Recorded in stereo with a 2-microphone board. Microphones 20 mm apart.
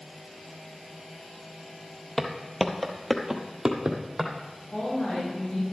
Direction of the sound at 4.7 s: 70° left (ahead or behind).